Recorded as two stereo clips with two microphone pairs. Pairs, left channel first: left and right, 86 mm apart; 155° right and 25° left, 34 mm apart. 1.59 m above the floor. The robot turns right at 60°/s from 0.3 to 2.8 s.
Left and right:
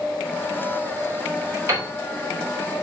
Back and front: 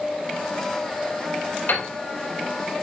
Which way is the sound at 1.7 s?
150° right.